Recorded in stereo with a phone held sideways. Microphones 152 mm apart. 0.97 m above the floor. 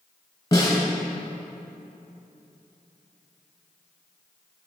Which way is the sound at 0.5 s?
25° left (ahead or behind).